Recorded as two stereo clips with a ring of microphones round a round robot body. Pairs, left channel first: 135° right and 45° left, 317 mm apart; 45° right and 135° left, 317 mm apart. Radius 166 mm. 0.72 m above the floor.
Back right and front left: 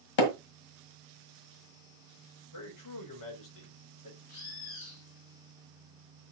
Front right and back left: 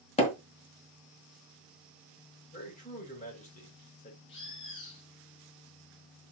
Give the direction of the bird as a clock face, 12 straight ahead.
3 o'clock.